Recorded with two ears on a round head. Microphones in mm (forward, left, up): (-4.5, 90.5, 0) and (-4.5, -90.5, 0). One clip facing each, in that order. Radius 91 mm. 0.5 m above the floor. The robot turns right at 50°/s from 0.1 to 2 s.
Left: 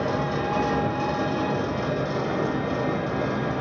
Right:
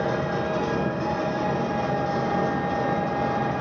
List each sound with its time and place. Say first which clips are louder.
0.0 s an engine running: even; 45° left, 0.9 m; by 3.6 s 140° left, 0.9 m